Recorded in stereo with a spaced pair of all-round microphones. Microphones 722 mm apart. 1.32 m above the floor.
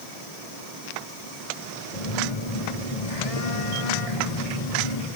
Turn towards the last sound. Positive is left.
turn(degrees=50)  # may be behind; listen again after turning